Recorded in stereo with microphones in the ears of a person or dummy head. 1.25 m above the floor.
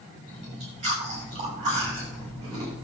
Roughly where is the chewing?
Right.